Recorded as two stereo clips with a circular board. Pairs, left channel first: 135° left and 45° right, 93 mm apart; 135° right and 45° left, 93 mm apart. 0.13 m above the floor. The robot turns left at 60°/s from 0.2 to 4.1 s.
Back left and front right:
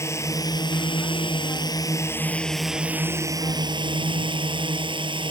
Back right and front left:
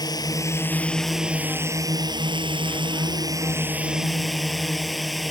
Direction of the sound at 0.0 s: 170° right.